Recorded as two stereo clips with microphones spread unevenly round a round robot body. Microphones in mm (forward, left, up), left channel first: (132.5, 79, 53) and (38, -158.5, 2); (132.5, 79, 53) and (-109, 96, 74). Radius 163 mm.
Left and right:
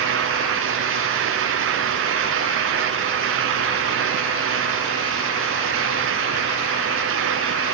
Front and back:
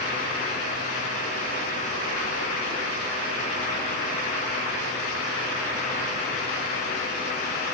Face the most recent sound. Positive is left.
No sound to turn to.